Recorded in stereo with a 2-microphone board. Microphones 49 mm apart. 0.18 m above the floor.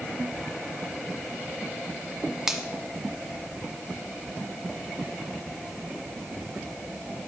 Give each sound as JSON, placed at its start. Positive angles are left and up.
{"t": 2.5, "sound": "a finger snap", "side_deg": -10, "distance_m": 1.1}